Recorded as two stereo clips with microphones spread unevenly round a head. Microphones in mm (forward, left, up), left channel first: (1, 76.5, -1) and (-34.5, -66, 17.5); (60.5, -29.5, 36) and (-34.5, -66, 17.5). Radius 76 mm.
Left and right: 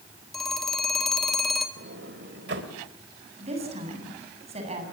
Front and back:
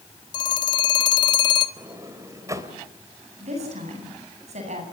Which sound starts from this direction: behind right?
A woman speaking, at 3.4 s.